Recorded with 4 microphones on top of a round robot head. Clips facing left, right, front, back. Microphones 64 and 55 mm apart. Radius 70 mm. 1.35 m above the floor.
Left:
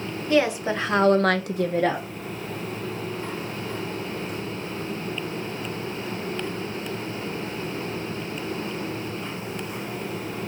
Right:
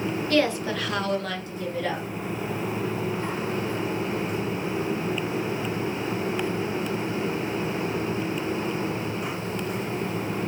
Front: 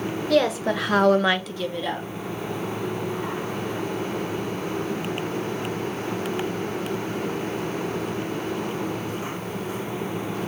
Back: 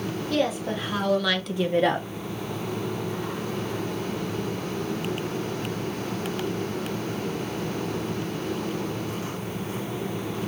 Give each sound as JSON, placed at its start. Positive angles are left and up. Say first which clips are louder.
{"t": 0.3, "sound": "a woman speaking", "louder": "left 3 dB, front 5 dB", "azimuth_deg": 15, "distance_m": 1.5}